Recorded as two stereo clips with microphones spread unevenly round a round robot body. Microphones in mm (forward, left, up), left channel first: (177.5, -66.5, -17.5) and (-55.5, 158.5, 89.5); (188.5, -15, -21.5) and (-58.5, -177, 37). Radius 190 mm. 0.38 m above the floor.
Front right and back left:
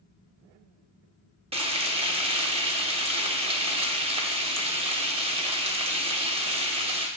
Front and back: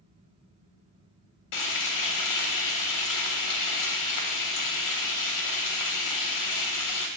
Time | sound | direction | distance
1.5 | frying | 55° left | 0.6 m